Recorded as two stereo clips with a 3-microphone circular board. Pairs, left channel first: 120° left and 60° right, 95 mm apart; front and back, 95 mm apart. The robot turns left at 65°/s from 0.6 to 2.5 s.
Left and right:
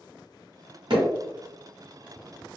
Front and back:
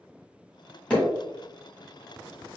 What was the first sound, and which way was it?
Hammering, 80° right.